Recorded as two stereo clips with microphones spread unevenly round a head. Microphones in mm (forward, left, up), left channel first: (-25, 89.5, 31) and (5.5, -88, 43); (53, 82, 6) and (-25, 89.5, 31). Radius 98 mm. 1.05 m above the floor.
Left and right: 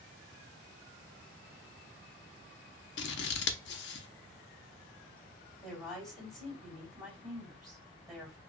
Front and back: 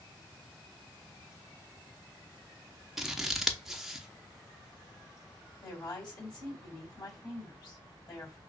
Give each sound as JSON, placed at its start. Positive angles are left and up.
{"t": 3.0, "sound": "scissors", "azimuth_deg": 105, "distance_m": 0.6}
{"t": 5.6, "sound": "a woman speaking", "azimuth_deg": 15, "distance_m": 3.0}